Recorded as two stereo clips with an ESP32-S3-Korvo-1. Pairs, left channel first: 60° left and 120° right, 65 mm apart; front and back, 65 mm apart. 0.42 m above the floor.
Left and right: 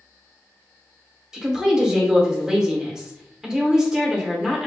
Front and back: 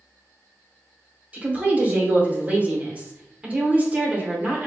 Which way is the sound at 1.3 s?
175° left.